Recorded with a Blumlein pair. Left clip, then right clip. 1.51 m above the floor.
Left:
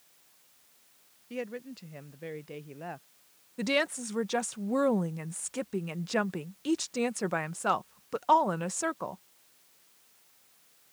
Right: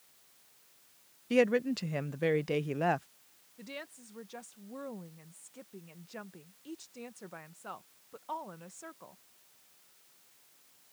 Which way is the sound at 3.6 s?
55° left.